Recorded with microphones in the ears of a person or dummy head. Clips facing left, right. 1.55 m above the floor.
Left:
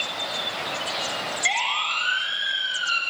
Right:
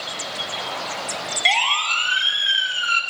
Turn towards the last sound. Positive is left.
turn(degrees=-40)  # may be behind; listen again after turning